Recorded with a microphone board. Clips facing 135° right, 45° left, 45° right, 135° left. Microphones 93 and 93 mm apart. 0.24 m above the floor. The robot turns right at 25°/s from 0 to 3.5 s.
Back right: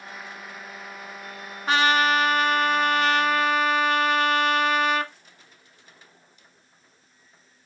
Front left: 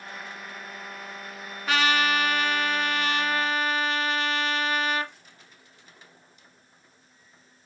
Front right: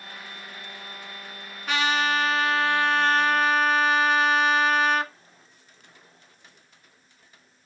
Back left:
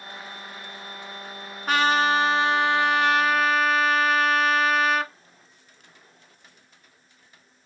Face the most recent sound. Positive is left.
turn(degrees=-135)